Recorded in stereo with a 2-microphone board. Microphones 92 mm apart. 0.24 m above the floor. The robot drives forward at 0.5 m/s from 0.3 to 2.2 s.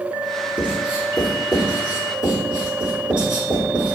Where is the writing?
20° right (ahead or behind), 1.1 m; by 3.9 s 10° right (ahead or behind), 1.8 m.